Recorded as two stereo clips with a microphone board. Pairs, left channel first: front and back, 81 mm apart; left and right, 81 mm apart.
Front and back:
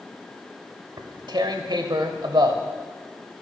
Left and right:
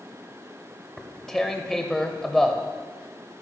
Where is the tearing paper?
Straight behind, 0.8 m.